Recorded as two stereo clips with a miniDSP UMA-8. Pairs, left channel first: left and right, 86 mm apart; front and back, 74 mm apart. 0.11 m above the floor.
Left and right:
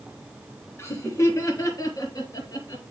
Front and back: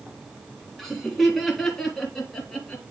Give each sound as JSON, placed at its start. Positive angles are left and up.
{"t": 0.8, "sound": "laughter", "azimuth_deg": 90, "distance_m": 1.7}